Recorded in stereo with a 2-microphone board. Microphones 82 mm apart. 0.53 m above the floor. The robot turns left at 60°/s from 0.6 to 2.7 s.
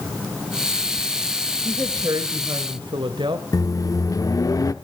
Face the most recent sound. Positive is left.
turn(degrees=45)  # may be behind; listen again after turning